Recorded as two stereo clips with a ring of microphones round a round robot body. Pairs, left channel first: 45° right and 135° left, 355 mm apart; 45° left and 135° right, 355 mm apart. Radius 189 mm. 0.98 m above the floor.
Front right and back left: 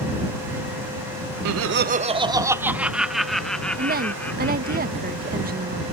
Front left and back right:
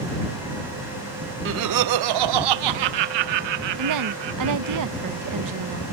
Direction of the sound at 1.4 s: 170° left.